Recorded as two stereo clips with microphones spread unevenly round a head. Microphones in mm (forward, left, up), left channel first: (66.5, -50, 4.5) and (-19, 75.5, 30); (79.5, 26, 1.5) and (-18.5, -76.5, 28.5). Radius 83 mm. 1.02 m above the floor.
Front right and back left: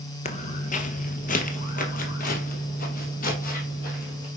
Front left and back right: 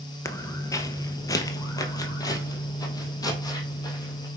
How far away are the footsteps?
About 1.1 m.